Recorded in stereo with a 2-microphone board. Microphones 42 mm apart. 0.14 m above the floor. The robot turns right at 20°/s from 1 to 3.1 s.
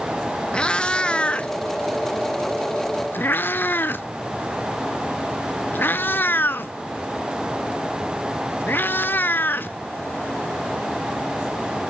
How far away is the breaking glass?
I don't hear breaking glass.